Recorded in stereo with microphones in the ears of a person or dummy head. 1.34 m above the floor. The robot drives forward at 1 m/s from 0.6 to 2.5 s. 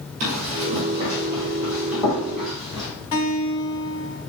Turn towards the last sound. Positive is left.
turn(degrees=30)  # may be behind; listen again after turning